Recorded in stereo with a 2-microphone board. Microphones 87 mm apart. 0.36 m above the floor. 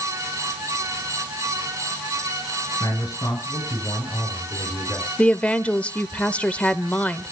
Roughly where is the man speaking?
Left.